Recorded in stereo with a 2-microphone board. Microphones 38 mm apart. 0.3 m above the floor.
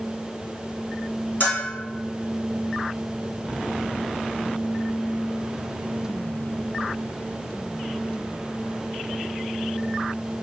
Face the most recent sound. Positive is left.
turn(degrees=45)  # may be behind; listen again after turning